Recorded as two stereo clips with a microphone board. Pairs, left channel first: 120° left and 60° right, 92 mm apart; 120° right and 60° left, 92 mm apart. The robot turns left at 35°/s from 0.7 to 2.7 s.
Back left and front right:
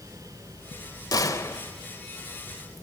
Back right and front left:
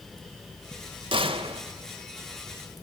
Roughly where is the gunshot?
Left.